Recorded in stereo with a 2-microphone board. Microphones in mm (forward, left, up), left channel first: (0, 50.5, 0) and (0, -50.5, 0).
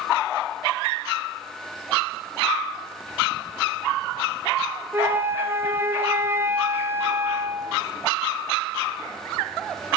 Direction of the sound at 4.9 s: 20° right (ahead or behind).